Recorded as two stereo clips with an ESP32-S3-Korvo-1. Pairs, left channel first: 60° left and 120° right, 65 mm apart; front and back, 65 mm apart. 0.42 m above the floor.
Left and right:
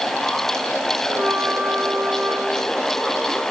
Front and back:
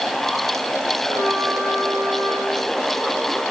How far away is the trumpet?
About 7 m.